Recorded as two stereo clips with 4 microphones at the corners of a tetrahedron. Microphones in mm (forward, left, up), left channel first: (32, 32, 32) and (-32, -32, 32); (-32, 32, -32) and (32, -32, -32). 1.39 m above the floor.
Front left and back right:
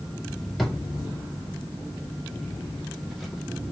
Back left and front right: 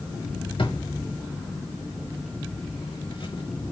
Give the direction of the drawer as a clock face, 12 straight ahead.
7 o'clock.